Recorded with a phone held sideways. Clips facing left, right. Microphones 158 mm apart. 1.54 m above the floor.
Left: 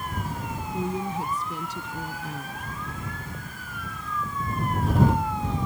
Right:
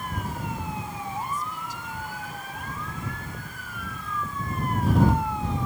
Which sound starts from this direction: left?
A woman speaking, at 0.7 s.